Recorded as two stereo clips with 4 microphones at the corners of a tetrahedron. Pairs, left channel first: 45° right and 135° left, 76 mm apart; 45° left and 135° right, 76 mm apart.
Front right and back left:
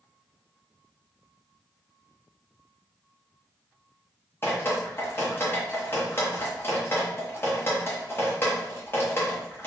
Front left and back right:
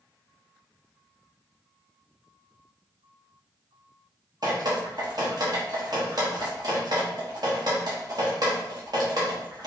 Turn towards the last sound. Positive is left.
turn(degrees=-105)